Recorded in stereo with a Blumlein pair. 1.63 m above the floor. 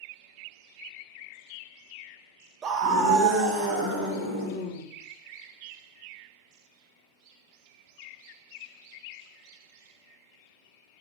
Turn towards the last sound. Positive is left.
turn(degrees=-45)